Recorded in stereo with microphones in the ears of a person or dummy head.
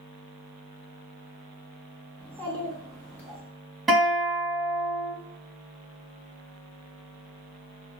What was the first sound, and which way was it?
A child speaking, 10° left (ahead or behind).